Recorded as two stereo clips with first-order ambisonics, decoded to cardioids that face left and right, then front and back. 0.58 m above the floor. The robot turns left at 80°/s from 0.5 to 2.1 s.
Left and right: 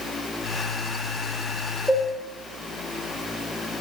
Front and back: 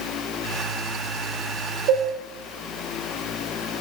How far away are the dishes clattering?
About 1.3 m.